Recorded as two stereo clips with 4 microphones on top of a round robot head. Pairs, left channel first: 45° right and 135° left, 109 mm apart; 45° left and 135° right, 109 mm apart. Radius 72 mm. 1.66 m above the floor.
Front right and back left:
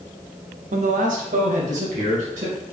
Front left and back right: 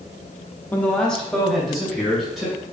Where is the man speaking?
120° left, 0.6 m; by 2.5 s 140° left, 2.5 m.